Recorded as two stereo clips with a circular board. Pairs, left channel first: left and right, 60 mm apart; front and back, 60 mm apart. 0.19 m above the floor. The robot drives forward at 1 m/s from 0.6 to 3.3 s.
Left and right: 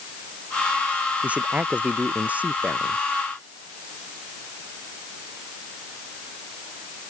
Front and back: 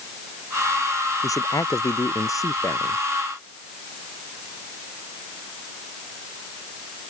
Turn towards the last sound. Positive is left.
turn(degrees=-30)